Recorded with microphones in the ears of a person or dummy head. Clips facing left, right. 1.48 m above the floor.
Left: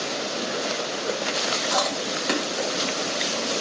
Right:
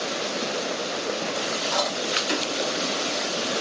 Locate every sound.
1.7 s chewing: 60° left (ahead or behind), 1.0 m